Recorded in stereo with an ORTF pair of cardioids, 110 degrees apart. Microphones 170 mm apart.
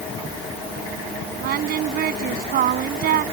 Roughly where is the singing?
Ahead right.